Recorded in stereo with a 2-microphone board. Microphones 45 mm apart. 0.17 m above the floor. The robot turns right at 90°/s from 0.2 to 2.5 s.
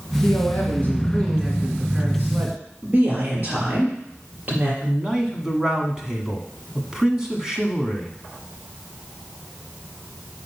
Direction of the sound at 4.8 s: 10° right (ahead or behind).